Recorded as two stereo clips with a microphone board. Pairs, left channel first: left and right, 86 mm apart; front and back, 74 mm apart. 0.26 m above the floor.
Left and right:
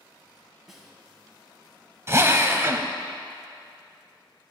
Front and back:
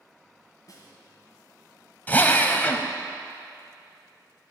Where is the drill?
55° right, 0.7 m.